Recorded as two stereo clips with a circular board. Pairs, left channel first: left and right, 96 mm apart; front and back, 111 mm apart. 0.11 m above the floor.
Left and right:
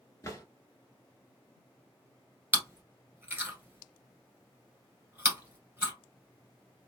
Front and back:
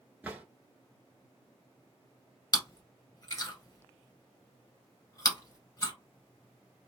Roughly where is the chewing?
Ahead right.